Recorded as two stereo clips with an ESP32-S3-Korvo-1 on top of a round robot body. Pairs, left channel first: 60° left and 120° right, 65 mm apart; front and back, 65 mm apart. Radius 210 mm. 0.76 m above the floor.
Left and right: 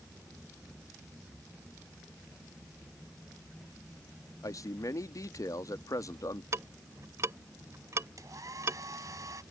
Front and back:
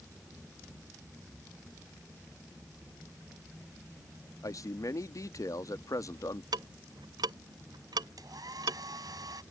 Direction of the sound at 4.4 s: 30° left.